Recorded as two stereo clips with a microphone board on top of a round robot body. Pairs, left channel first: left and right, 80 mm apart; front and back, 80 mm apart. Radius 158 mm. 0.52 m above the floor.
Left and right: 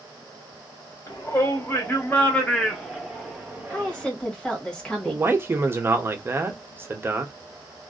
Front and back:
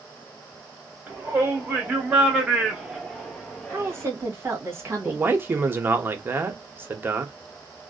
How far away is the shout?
About 1.7 m.